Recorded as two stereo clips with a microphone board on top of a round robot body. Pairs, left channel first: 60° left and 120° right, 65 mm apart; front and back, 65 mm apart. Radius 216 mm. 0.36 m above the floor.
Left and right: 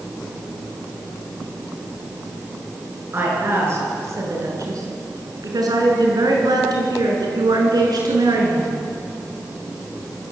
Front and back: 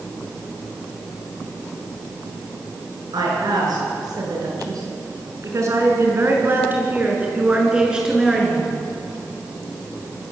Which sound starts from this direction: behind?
A woman speaking, at 3.1 s.